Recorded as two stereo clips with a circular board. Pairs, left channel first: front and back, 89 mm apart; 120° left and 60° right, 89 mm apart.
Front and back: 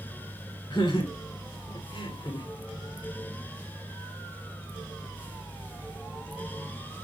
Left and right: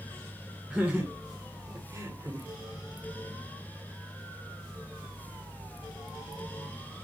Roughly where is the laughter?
Ahead.